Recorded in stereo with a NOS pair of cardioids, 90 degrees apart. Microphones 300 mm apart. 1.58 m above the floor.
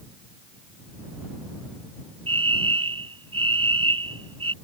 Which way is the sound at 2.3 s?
15° right.